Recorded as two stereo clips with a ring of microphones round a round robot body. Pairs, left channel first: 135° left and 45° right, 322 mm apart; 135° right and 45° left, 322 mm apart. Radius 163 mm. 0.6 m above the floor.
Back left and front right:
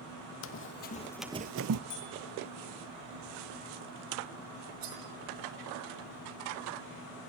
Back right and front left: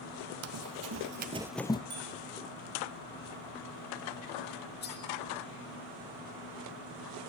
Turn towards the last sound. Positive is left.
turn(degrees=-75)